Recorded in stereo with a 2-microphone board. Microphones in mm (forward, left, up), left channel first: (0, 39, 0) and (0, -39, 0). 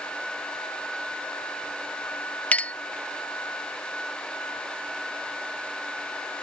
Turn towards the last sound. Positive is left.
turn(degrees=20)  # may be behind; listen again after turning